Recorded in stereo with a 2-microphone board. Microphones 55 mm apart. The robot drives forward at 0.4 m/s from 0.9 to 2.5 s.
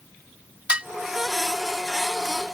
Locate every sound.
0.7 s dishes clattering: 20° right (ahead or behind)